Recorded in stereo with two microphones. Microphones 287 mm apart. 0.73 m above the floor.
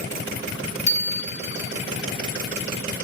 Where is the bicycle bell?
70° left (ahead or behind), 3.5 m.